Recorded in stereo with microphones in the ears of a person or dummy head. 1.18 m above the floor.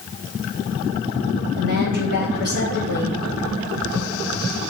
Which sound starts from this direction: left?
A woman speaking, at 1.6 s.